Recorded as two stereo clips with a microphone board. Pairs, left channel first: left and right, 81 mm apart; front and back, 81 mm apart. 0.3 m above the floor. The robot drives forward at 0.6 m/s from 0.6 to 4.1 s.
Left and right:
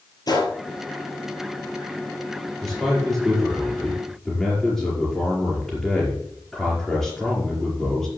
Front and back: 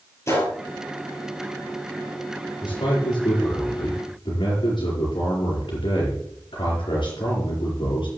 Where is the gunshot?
55° left, 3.5 m.